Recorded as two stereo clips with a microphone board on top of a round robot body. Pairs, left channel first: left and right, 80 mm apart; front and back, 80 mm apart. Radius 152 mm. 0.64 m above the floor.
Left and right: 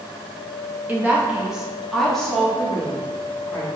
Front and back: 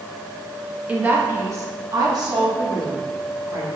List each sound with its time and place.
0.9 s a woman speaking: 125° right, 0.9 m; by 3.7 s 160° left, 1.8 m